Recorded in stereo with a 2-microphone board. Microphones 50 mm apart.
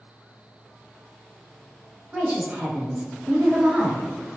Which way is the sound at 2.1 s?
20° right (ahead or behind).